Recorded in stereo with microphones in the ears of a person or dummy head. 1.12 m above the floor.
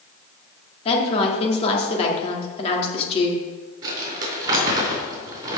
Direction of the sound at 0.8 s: 35° left (ahead or behind).